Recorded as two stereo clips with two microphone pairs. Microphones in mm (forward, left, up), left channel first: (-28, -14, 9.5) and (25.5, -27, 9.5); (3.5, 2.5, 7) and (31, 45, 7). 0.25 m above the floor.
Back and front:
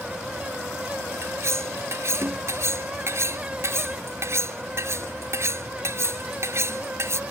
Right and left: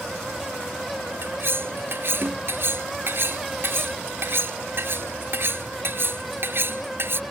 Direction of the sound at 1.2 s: 20° left.